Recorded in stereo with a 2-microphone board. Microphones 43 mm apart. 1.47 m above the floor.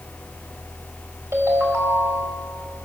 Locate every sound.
1.3 s a ringtone: 80° right, 4 m